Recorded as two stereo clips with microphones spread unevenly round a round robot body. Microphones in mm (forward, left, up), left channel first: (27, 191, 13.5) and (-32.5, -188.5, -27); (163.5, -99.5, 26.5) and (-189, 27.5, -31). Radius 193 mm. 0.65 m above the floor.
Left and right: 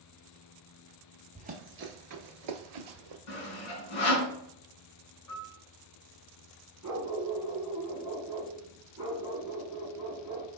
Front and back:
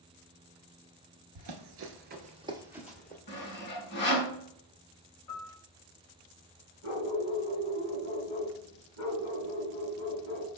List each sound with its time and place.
1.4 s running footsteps: 175° right, 0.8 m; by 3.2 s 100° right, 1.1 m
3.3 s sawing: 45° left, 1.8 m
5.3 s a piano: 30° left, 1.9 m
6.8 s a dog barking: 10° right, 2 m